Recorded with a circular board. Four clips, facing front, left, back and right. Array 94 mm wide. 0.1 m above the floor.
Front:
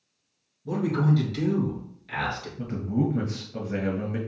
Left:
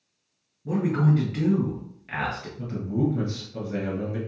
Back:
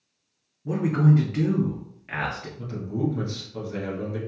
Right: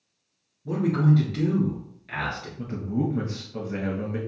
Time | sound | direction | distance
0.7 | a man speaking | 160° left | 1.4 m
2.6 | a man speaking | 25° right | 1.4 m